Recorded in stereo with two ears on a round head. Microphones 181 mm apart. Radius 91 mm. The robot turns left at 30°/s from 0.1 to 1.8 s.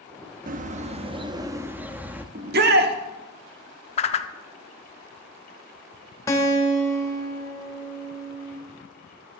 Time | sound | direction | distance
0.5 | a bird | 130° right | 0.7 m
2.4 | a shout | 50° right (ahead or behind) | 1.3 m
4.0 | a whoosh | 35° left (ahead or behind) | 0.7 m
6.3 | a guitar | 15° left (ahead or behind) | 1.4 m